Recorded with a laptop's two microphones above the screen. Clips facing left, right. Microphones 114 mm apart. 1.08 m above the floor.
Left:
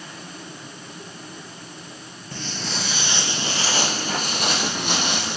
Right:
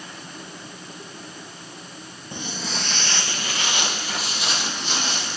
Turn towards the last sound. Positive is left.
turn(degrees=60)  # may be behind; listen again after turning